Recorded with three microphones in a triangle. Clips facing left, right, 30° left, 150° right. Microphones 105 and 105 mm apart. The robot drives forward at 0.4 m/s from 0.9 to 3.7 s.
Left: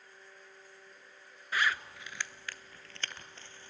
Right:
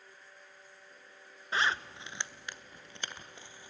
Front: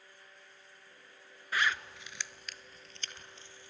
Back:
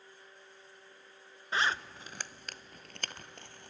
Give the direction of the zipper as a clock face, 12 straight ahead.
4 o'clock.